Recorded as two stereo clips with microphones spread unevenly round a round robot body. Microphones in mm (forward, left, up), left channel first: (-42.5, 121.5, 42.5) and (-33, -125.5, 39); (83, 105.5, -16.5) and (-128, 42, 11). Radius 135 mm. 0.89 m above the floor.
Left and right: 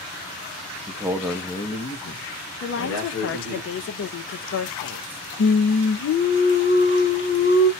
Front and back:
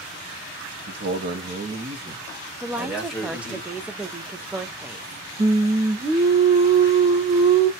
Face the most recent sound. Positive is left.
turn(degrees=130)